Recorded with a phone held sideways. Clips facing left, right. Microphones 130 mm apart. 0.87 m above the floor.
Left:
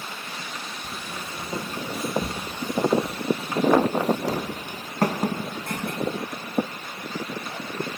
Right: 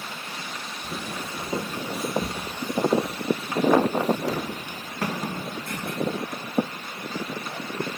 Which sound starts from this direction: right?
Footsteps, at 0.8 s.